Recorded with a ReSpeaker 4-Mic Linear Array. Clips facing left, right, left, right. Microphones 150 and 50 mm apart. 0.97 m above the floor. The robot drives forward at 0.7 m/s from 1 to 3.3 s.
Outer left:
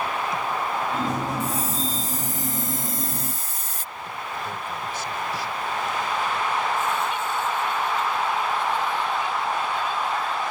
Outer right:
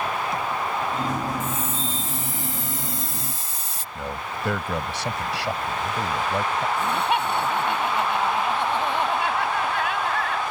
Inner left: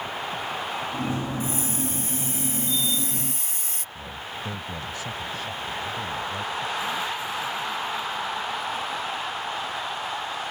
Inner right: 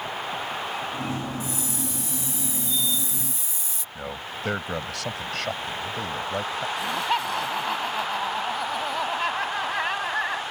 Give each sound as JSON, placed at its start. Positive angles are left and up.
{"t": 1.4, "sound": "a hiss", "side_deg": 35}
{"t": 4.0, "sound": "a man speaking", "side_deg": -80}
{"t": 6.8, "sound": "laughter", "side_deg": -70}